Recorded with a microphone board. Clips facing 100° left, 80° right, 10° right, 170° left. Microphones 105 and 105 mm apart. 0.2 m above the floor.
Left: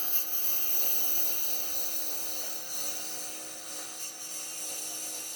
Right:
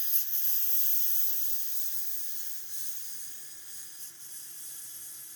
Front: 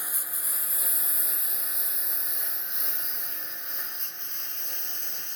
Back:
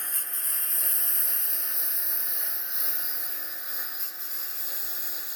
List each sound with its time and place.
0.0 s a lawn mower: 70° left; by 5.4 s 85° left